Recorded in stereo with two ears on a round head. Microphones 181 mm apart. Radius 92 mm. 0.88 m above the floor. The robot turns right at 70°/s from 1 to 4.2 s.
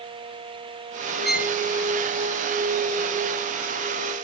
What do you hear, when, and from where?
1.2 s a violin: centre (ahead or behind); by 1.6 s 20° right (ahead or behind)